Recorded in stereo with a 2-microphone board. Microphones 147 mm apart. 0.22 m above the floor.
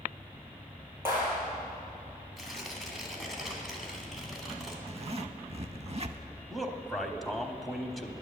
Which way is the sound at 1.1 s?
15° right (ahead or behind).